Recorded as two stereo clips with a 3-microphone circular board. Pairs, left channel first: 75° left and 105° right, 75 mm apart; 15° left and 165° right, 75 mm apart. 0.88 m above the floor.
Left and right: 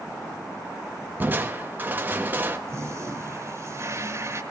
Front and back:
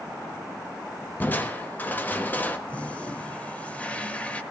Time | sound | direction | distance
1.2 | crushing | 45° right | 1.2 m
2.7 | a toilet flushing | 55° right | 1.2 m